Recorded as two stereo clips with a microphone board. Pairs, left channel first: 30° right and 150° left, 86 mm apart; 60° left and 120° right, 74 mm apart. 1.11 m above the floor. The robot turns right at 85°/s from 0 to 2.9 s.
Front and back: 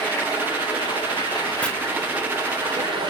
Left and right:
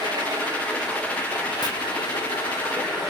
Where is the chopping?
45° left, 1.0 m; by 1.7 s 50° left, 1.0 m.